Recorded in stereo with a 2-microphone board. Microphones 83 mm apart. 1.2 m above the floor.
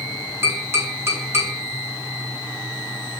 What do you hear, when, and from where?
0.4 s tapping: 30° right (ahead or behind), 2 m